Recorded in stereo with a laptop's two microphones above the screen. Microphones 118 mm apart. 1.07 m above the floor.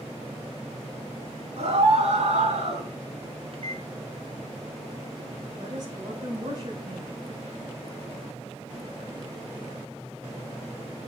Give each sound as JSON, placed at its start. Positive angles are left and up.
{"t": 1.6, "sound": "a scream", "side_deg": -60, "distance_m": 6.5}
{"t": 3.5, "sound": "a microwave", "side_deg": -50, "distance_m": 0.8}
{"t": 5.6, "sound": "a woman speaking", "side_deg": -40, "distance_m": 6.5}